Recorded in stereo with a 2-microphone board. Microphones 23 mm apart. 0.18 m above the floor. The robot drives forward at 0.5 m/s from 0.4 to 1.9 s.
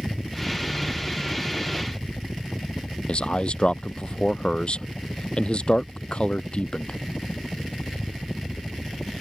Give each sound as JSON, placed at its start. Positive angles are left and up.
{"t": 0.0, "sound": "a helicopter", "side_deg": 35}
{"t": 3.1, "sound": "a man speaking", "side_deg": 45}